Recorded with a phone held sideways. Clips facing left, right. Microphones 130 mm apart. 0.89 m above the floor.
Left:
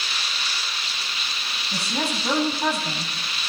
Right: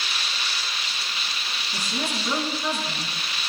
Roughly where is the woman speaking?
Left.